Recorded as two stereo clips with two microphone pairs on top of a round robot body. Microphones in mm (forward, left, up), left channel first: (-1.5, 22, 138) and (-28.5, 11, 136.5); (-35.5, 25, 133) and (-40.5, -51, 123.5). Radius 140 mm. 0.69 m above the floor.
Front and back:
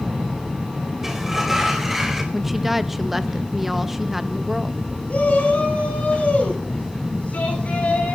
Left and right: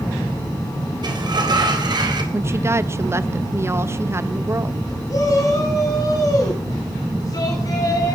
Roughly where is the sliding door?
Right.